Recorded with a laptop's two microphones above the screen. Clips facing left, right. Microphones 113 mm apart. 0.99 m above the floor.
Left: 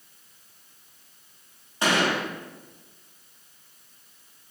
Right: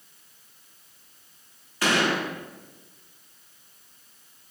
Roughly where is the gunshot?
Left.